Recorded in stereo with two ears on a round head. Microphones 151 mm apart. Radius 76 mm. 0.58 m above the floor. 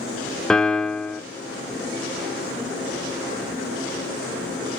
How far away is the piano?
About 0.7 m.